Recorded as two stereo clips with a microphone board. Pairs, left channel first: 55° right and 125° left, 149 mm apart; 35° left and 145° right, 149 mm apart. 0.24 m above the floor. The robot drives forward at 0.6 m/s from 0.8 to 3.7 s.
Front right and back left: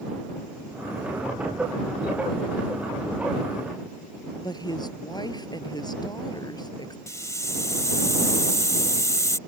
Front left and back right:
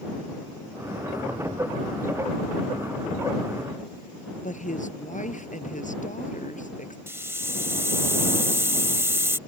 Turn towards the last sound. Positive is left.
turn(degrees=-95)